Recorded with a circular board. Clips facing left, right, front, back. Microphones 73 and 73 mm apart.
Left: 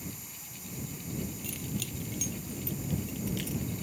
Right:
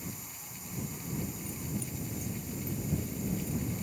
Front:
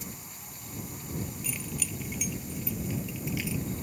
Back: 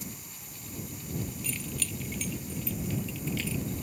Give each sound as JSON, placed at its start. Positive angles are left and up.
{"t": 1.4, "sound": "keys jangling", "azimuth_deg": 80}